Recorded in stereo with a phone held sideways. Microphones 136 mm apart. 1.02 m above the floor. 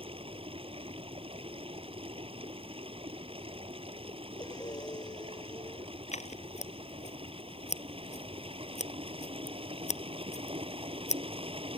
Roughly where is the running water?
Right.